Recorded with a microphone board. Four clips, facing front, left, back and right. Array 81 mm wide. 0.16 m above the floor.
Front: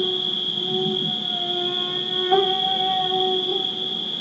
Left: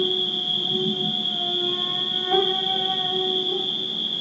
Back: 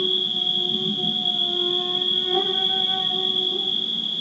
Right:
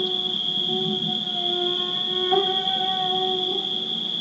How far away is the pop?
No pop in this recording.